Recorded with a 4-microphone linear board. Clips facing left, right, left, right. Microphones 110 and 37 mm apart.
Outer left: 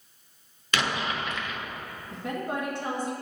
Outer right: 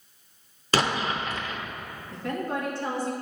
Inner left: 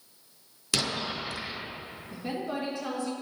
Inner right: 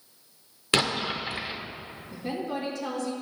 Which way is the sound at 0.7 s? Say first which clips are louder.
Outer right 3 dB, inner right 5 dB; 35° right (ahead or behind).